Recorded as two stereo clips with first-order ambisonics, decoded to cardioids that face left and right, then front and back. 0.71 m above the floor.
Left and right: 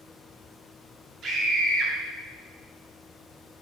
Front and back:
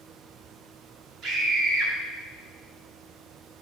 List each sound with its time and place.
1.2 s a scream: 140° right, 2.0 m